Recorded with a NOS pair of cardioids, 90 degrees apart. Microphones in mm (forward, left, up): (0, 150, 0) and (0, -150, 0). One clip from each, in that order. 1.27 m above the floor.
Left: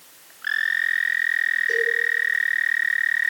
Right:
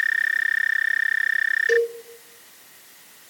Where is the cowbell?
50° right, 0.7 m.